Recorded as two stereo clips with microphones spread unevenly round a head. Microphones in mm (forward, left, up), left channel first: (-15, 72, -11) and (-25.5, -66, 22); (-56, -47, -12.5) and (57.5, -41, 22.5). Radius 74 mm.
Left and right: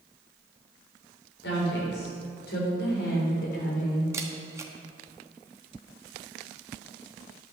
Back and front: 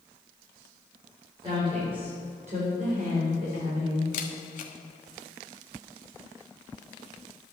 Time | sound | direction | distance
1.4 | a woman speaking | 65° left | 4 m
4.1 | a camera shutter | 160° right | 1.1 m